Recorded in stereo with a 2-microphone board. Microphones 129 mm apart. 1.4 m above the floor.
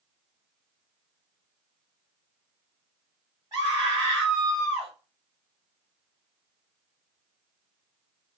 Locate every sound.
3.5 s a scream: 25° right (ahead or behind), 1.3 m